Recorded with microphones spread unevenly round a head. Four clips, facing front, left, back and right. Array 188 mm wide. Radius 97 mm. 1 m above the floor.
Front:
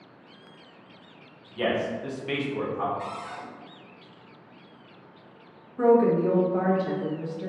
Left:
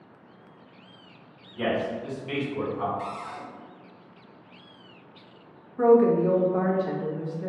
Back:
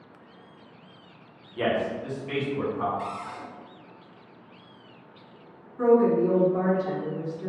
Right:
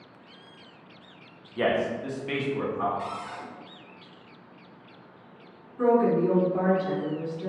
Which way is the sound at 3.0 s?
140° left.